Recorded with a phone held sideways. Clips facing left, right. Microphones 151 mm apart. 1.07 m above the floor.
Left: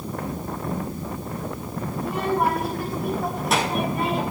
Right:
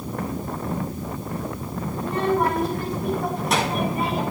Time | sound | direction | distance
2.0 | a child speaking | 10° left (ahead or behind) | 5.5 m